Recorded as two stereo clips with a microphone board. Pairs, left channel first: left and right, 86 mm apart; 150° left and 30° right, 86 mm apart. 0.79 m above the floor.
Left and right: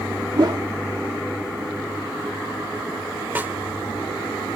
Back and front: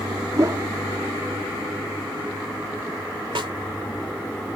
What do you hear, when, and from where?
0.4 s a whoosh: 75° right
3.4 s a snare drum: 25° right